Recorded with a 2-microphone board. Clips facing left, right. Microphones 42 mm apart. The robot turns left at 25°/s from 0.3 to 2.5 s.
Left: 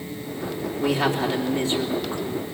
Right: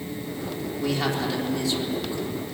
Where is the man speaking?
165° left, 3.5 m; by 2.5 s 120° left, 3.5 m.